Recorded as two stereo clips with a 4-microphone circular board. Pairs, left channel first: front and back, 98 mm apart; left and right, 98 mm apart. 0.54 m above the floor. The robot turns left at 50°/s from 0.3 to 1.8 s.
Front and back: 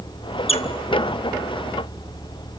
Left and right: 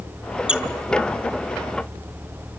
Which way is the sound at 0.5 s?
10° right.